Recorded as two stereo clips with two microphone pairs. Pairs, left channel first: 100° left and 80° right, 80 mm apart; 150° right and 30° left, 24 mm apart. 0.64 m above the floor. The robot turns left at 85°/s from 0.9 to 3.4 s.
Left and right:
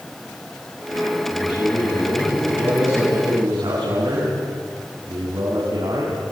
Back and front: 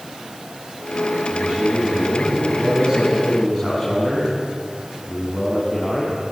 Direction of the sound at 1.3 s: 120° left.